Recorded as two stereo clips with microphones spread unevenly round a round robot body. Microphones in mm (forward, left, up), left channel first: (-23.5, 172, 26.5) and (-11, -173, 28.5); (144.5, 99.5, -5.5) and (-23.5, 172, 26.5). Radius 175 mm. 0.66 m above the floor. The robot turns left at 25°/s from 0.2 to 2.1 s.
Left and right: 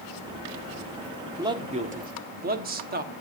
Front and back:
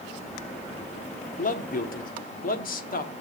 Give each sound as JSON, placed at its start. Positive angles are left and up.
{"t": 1.4, "sound": "a man speaking", "azimuth_deg": -10, "distance_m": 1.2}